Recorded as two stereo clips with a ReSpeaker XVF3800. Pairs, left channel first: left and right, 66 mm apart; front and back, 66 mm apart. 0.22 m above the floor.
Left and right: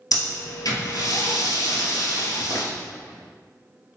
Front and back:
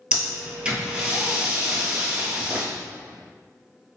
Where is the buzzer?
No buzzer in this recording.